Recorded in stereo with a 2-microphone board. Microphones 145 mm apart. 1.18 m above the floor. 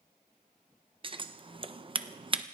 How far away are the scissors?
About 0.7 m.